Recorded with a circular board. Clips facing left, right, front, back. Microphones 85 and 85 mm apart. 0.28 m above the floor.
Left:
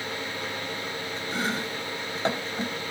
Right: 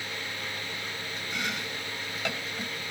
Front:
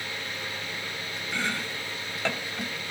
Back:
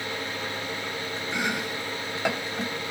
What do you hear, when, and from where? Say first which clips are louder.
1.3 s chopping: left 5 dB, back 2 dB; 115° left, 0.5 m